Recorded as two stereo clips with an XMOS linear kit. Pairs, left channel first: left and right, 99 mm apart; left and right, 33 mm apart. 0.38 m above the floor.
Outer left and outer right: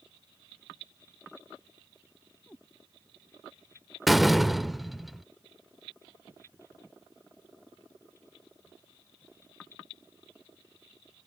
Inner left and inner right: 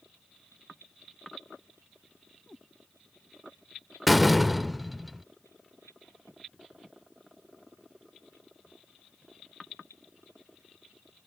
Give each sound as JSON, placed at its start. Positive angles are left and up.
{"t": 2.5, "sound": "a cat meowing", "side_deg": 15}
{"t": 4.1, "sound": "a door slam", "side_deg": 0}